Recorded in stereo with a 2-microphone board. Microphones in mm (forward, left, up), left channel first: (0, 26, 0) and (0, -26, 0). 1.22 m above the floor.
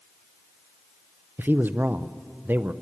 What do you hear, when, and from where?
1.4 s a man speaking: 40° right (ahead or behind), 0.6 m